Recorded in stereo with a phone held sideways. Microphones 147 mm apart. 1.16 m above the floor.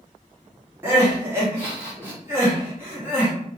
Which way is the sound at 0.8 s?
15° right (ahead or behind).